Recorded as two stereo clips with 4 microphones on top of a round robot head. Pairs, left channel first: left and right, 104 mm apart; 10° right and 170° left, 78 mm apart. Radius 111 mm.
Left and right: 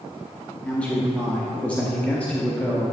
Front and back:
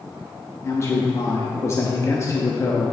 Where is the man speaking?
15° left, 0.9 m.